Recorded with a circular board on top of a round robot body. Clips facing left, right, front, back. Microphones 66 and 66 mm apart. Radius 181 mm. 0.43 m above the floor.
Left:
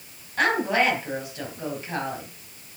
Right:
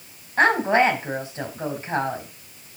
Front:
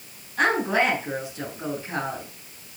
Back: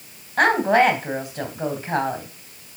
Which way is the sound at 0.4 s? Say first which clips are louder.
Right 4 dB, back 5 dB; 150° right.